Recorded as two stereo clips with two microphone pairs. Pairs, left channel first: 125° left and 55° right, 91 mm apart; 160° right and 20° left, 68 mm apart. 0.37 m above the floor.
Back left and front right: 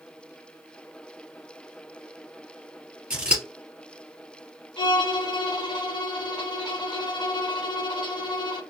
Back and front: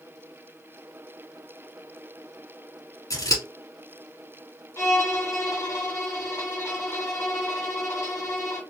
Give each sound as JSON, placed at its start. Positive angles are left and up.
{"t": 3.1, "sound": "scissors", "azimuth_deg": -135, "distance_m": 2.5}
{"t": 4.8, "sound": "a violin", "azimuth_deg": 160, "distance_m": 1.0}